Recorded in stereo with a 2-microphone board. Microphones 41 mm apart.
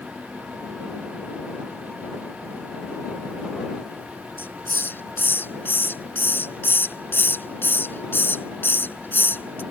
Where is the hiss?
65° left (ahead or behind).